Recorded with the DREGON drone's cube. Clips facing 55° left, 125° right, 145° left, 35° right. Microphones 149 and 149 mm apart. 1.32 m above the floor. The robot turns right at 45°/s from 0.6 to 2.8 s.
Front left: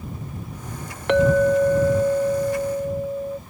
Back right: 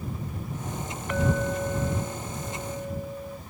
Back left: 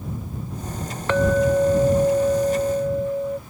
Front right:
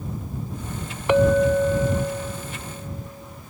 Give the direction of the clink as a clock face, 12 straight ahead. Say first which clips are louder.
Front left 11 dB, front right 1 dB; 11 o'clock.